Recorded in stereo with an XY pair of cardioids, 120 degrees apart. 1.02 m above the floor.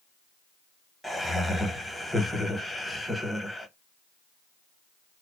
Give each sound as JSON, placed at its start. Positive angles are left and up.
{"t": 1.0, "sound": "laughter", "azimuth_deg": 10, "distance_m": 1.0}